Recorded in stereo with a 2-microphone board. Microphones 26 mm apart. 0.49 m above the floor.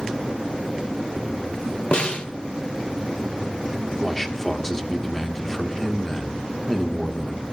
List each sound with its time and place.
1.9 s a snare drum: 45° left (ahead or behind), 2.0 m
4.0 s a man speaking: 5° left (ahead or behind), 1.3 m